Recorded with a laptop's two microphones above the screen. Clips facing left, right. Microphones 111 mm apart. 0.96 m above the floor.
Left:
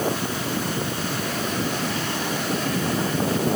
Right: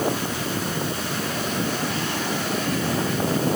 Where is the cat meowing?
No cat meowing in this recording.